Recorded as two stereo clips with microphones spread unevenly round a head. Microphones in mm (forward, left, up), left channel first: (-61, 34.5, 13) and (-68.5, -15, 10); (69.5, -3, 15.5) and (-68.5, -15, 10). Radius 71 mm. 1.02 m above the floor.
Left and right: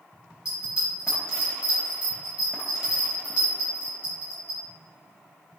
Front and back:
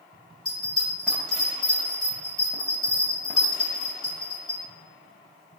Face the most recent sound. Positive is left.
turn(degrees=60)